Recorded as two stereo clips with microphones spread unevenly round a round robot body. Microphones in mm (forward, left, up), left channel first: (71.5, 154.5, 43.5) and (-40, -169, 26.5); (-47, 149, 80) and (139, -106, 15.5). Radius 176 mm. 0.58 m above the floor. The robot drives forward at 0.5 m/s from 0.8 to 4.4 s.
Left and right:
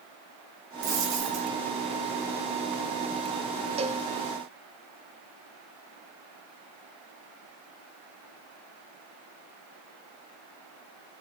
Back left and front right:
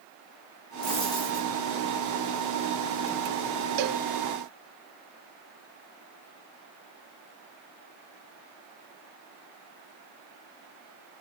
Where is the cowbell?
35° right, 1.0 m; by 4.0 s 40° right, 0.9 m.